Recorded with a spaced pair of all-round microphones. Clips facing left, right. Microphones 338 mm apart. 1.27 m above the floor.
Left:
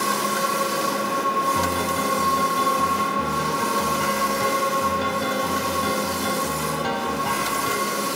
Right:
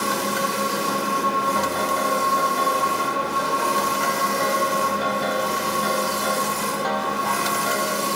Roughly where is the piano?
Left.